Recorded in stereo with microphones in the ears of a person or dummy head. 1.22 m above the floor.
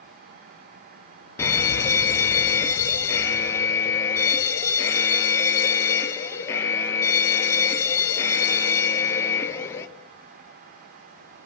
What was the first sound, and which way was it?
An alarm, 15° left (ahead or behind).